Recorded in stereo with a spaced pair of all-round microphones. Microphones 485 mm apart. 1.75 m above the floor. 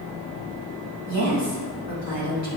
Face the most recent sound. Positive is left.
turn(degrees=-35)  # may be behind; listen again after turning